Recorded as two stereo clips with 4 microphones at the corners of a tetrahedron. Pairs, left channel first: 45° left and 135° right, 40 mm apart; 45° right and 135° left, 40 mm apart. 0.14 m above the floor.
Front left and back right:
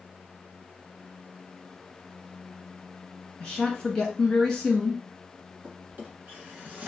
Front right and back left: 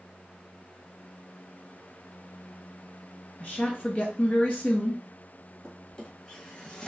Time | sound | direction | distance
3.4 | a woman speaking | 20° right | 1.5 m
5.6 | a drawer | 105° right | 1.3 m